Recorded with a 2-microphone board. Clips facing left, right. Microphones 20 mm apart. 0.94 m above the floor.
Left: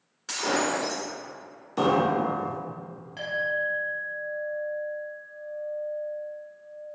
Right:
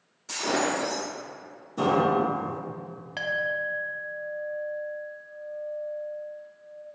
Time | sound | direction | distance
0.3 | breaking glass | 65° left (ahead or behind) | 1.8 m
1.8 | a piano | 70° left (ahead or behind) | 1.0 m
3.2 | a clink | 45° right (ahead or behind) | 0.5 m